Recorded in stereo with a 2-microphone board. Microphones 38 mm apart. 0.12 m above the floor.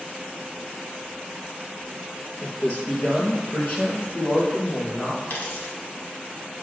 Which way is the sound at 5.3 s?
70° left (ahead or behind).